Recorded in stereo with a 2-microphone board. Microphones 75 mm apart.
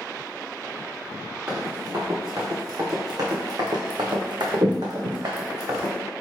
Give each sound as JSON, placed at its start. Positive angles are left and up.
{"t": 1.5, "sound": "running footsteps", "side_deg": -35, "distance_m": 1.8}